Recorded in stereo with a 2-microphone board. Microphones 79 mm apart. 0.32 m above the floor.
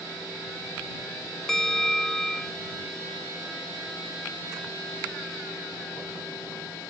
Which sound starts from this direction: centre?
A bell, at 1.5 s.